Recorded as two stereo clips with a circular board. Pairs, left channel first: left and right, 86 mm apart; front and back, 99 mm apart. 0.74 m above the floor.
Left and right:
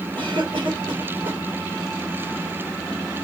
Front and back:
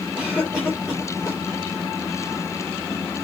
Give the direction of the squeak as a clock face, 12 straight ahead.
No squeak in this recording.